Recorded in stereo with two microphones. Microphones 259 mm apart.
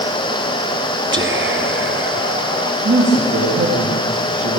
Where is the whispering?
50° right (ahead or behind), 2.5 m.